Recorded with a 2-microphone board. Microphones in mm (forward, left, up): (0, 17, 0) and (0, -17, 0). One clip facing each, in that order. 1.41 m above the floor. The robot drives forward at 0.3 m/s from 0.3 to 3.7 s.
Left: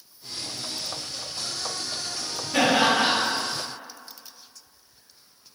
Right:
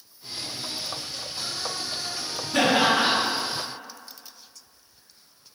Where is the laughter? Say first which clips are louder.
Even; 25° left (ahead or behind), 1.6 m.